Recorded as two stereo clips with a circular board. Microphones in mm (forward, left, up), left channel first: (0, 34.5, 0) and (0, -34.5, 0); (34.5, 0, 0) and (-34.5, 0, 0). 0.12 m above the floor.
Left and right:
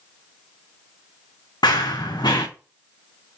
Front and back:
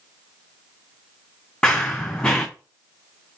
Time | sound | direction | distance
1.6 | running footsteps | 80° left | 0.5 m